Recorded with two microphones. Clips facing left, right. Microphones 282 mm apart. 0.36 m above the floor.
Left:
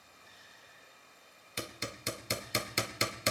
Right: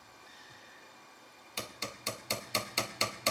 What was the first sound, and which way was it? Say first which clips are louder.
Running water: right 4 dB; 70° right (ahead or behind).